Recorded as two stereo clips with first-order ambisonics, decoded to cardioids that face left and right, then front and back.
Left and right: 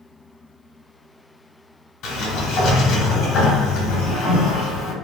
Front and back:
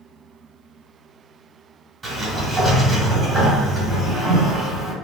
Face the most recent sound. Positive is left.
turn(degrees=100)